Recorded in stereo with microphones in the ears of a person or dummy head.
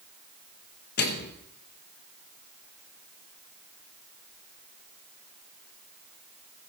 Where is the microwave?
55° left (ahead or behind), 1.1 m.